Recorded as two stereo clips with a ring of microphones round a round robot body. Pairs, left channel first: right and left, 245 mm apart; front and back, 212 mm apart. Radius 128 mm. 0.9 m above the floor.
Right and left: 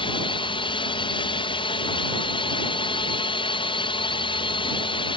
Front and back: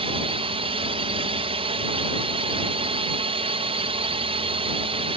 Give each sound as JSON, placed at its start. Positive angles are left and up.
{"t": 0.0, "sound": "a drone", "azimuth_deg": -140}